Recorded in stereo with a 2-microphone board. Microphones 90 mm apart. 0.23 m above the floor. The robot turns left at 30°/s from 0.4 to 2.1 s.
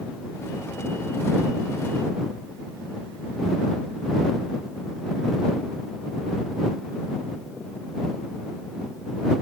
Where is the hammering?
No hammering in this recording.